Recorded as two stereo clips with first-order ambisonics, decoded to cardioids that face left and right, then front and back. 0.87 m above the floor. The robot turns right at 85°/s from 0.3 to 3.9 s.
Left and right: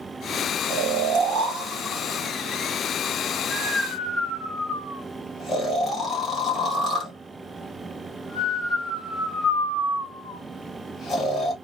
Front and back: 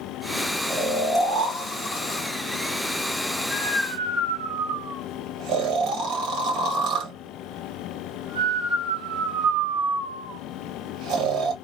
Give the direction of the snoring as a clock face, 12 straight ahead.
4 o'clock.